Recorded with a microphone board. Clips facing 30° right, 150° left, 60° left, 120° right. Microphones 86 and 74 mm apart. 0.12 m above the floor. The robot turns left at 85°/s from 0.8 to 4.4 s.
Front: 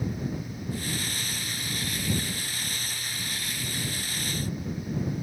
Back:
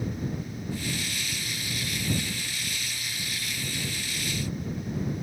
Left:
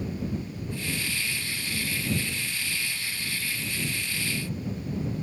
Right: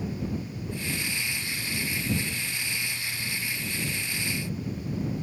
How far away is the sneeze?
No sneeze in this recording.